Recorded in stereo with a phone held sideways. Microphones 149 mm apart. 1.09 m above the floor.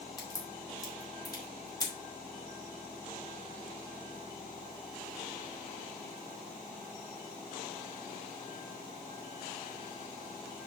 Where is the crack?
25° left (ahead or behind), 3 m.